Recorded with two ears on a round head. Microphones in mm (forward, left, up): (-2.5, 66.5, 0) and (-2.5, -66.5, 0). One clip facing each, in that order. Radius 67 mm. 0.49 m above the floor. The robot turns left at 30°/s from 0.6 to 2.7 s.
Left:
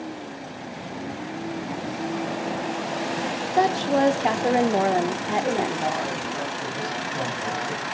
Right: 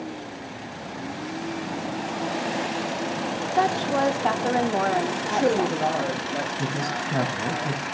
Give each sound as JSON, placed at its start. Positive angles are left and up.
{"t": 3.6, "sound": "a woman speaking", "side_deg": 20, "distance_m": 0.7}
{"t": 5.2, "sound": "a man speaking", "side_deg": -65, "distance_m": 7.5}
{"t": 6.6, "sound": "a man speaking", "side_deg": -70, "distance_m": 4.0}